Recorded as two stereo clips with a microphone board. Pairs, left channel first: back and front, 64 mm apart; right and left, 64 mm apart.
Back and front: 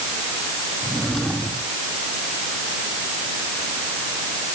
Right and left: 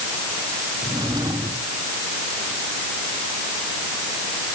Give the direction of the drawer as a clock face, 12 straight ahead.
9 o'clock.